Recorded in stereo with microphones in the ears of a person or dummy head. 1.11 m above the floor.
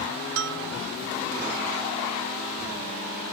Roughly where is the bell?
Right.